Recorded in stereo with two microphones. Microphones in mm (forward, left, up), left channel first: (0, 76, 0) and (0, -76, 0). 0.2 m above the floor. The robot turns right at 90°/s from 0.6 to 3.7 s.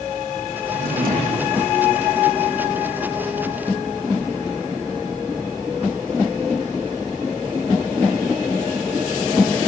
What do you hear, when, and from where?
0.7 s a drawer: 100° right, 7 m; by 1.6 s 20° right, 7 m